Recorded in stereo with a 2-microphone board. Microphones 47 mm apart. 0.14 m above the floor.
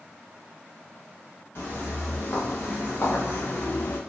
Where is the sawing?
I don't hear sawing.